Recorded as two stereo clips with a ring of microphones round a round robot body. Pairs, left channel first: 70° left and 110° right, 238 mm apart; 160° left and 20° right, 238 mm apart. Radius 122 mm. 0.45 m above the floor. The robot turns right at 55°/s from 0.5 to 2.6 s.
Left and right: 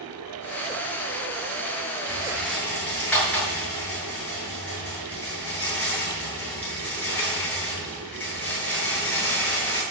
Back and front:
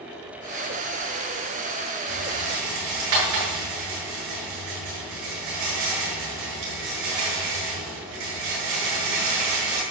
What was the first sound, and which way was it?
A rattle, 45° right.